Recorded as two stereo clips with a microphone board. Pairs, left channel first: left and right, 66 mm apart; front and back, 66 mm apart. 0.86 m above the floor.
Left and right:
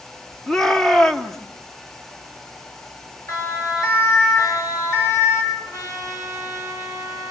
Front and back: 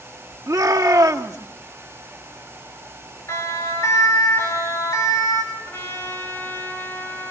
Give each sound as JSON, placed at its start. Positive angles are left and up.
{"t": 0.5, "sound": "a shout", "azimuth_deg": 175, "distance_m": 2.0}
{"t": 3.3, "sound": "a siren", "azimuth_deg": 50, "distance_m": 8.5}
{"t": 5.5, "sound": "a trumpet", "azimuth_deg": 60, "distance_m": 8.0}